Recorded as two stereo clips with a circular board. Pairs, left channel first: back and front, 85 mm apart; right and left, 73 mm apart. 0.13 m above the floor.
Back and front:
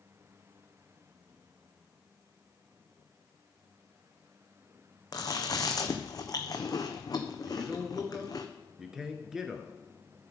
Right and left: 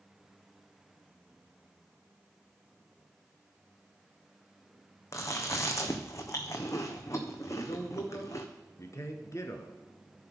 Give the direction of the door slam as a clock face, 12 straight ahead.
I don't hear a door slam.